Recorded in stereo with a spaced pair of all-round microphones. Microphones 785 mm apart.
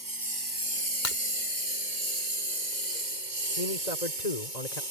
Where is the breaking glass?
75° left (ahead or behind).